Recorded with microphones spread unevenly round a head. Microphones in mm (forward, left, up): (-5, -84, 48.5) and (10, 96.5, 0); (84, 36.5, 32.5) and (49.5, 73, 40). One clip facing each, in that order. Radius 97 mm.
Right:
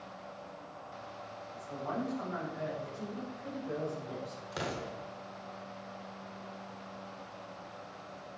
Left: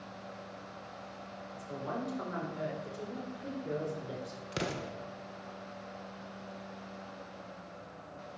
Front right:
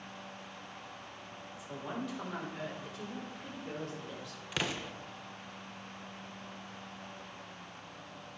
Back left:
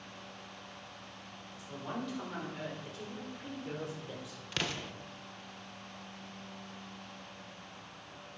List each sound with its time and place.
1.5 s a woman speaking: 30° left, 4 m; by 4.4 s 50° left, 4 m
4.5 s an explosion: 30° left, 1.2 m